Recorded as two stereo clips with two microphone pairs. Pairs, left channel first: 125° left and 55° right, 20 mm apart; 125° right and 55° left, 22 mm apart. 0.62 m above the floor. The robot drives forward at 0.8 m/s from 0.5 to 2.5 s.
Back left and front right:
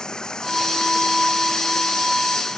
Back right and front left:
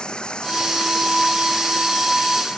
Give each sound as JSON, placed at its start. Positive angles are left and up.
{"t": 0.0, "sound": "running water", "azimuth_deg": -175}